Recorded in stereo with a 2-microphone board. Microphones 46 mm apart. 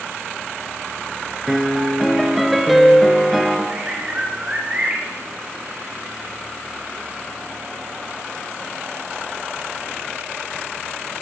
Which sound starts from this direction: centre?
A piano, at 1.5 s.